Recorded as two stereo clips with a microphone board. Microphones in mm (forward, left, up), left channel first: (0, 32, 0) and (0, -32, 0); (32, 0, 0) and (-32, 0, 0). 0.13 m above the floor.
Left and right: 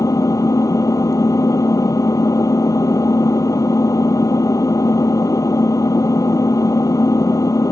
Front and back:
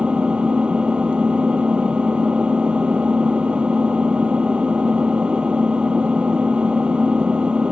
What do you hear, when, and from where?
0.0 s an engine running: 110° left